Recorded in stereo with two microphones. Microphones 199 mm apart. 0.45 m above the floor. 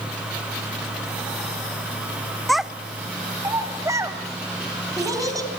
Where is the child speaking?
Centre (ahead or behind), 0.5 m; by 5.5 s 15° right (ahead or behind), 2.5 m.